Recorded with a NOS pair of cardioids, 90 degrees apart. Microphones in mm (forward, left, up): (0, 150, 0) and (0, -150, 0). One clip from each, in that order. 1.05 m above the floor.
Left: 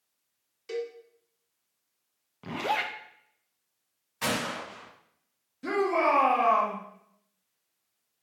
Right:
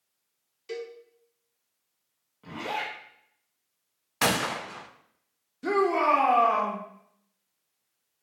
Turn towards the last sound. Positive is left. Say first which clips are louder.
# right 2 dB
turn(degrees=-15)